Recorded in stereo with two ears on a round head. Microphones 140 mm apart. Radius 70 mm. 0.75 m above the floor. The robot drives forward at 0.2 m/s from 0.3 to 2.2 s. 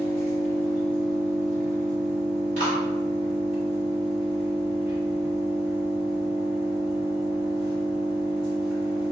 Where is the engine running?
75° right (ahead or behind), 1.9 m; by 9.1 s 80° right, 1.9 m.